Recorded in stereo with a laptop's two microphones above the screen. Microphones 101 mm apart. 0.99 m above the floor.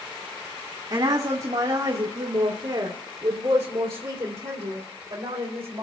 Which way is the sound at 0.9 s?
60° right (ahead or behind).